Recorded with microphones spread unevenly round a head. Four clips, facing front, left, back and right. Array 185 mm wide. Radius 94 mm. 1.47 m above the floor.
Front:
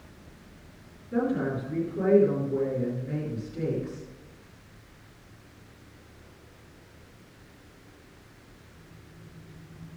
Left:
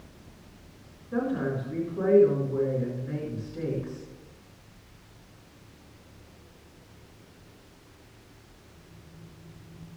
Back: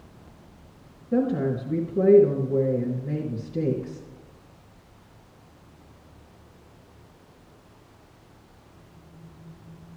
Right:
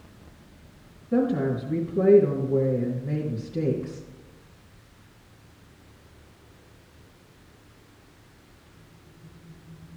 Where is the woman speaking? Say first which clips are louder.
Right 5 dB, back 3 dB; 145° right, 2.5 m.